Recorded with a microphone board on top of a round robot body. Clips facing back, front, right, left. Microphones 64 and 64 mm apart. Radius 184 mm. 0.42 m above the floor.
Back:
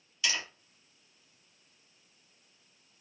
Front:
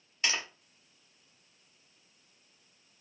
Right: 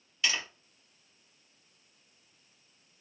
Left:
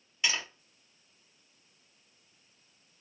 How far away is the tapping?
About 1.3 m.